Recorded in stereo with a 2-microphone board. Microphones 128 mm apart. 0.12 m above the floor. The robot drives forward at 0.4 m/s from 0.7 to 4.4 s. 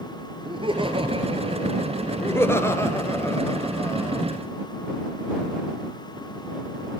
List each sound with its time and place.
0.5 s laughter: 40° right (ahead or behind), 3 m; by 2.8 s 50° right (ahead or behind), 2.5 m
2.2 s laughter: 20° left (ahead or behind), 2 m; by 4.3 s 25° left (ahead or behind), 1.7 m